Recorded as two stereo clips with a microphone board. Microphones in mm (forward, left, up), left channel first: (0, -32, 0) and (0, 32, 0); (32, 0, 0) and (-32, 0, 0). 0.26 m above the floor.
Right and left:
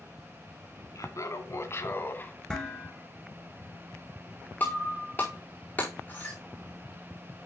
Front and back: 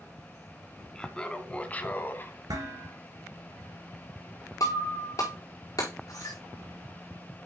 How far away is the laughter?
About 2 m.